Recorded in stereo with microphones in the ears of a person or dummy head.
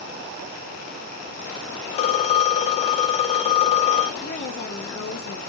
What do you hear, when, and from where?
1.9 s a phone ringing: 25° left (ahead or behind), 0.7 m
4.2 s a woman speaking: 60° left (ahead or behind), 1.8 m